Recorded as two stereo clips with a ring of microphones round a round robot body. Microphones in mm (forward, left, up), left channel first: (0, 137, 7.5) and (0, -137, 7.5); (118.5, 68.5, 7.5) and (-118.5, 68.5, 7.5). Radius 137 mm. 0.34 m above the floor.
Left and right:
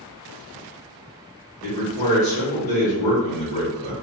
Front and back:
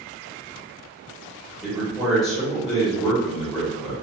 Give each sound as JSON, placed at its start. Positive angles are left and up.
{"t": 1.6, "sound": "a man speaking", "azimuth_deg": 90, "distance_m": 0.9}